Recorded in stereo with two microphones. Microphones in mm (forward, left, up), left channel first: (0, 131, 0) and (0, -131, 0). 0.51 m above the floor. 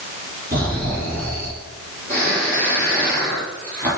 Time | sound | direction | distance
0.5 | snoring | 35° right (ahead or behind) | 3 m